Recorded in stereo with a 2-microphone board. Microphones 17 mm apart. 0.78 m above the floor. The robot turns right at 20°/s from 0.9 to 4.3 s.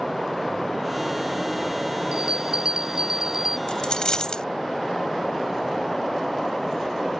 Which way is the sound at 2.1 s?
60° right (ahead or behind).